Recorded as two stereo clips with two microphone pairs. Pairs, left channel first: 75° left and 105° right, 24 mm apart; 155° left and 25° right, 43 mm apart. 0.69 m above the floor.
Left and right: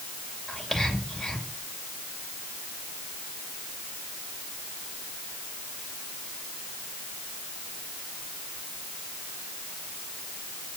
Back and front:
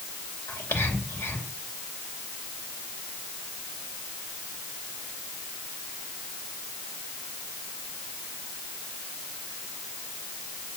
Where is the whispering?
150° left, 3 m.